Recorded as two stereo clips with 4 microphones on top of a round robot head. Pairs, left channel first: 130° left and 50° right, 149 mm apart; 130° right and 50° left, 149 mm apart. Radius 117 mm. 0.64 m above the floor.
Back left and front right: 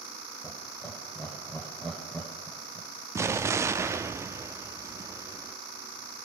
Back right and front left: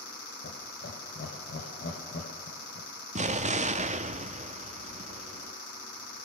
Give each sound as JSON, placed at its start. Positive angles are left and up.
{"t": 0.4, "sound": "laughter", "azimuth_deg": -145, "distance_m": 3.0}
{"t": 3.1, "sound": "an explosion", "azimuth_deg": 20, "distance_m": 1.1}